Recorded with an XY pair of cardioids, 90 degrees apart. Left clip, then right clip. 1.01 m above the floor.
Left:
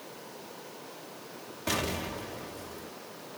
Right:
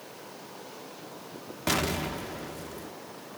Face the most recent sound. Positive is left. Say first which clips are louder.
# right 3 dB
turn(degrees=-55)